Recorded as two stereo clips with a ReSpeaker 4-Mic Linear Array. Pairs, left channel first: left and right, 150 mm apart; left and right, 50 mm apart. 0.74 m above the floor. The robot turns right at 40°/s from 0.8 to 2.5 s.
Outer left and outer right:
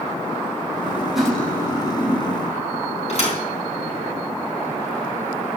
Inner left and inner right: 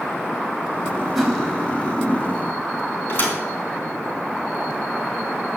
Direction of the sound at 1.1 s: 5° right.